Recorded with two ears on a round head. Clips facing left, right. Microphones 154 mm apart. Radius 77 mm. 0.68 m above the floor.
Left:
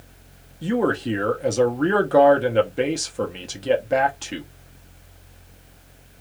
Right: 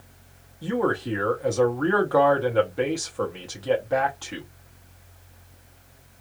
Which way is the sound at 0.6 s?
25° left (ahead or behind).